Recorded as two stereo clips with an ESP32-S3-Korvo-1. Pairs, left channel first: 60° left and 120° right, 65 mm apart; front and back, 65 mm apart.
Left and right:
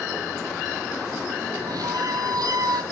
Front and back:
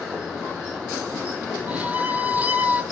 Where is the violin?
115° right, 0.7 m.